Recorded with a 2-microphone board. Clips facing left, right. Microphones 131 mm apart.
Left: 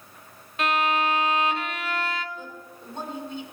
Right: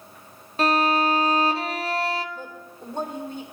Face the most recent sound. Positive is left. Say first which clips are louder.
# right 2 dB
turn(degrees=-50)  # may be behind; listen again after turning